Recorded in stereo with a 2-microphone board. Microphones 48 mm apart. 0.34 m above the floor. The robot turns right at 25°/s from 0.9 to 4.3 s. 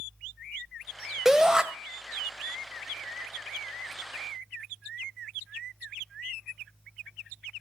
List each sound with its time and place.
1.2 s a shout: 10° right (ahead or behind), 1.4 m; by 1.6 s 15° right (ahead or behind), 1.4 m